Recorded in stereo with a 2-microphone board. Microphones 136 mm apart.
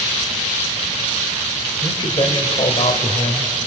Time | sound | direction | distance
1.8 | a man speaking | 35° left (ahead or behind) | 2.5 m